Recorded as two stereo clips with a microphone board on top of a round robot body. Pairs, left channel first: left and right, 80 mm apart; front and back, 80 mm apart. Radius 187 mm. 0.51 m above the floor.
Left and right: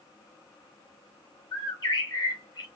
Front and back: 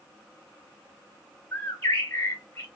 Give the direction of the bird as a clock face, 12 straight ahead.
10 o'clock.